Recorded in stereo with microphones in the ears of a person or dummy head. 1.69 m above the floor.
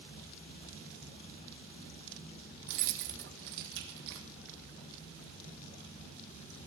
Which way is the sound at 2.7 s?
65° right (ahead or behind).